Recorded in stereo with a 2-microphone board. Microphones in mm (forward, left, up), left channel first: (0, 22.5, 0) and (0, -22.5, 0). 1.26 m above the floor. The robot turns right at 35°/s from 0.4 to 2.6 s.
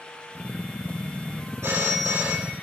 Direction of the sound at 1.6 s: 90° right.